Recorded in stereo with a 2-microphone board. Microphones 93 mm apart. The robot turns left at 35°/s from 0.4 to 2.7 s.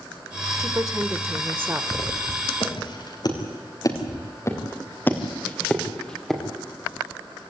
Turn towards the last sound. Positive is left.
turn(degrees=0)  # may be behind; listen again after turning